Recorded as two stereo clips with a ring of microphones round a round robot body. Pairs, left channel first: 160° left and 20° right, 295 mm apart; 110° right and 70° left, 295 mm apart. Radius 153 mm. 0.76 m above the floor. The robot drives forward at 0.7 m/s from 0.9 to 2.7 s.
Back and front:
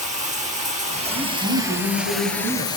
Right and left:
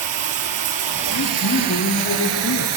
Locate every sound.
0.0 s running water: 45° left, 2 m; by 2.8 s 80° left, 1.5 m
1.1 s a woman speaking: 60° right, 4.5 m; by 2.7 s 75° right, 4 m